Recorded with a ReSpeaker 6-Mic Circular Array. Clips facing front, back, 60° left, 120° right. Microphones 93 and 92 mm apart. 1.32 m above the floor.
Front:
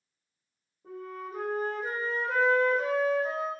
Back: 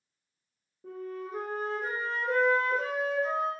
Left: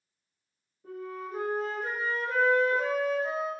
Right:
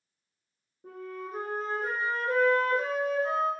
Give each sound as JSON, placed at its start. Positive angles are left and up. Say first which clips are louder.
{"t": 0.8, "sound": "a flute", "louder": "back 1 dB, left 1 dB", "azimuth_deg": -165, "distance_m": 1.5}